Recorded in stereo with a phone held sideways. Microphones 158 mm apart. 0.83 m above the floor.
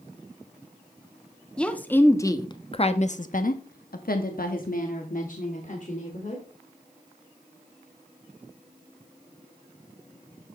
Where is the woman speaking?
5° left (ahead or behind), 1.5 m; by 6.4 s 50° left (ahead or behind), 2.5 m.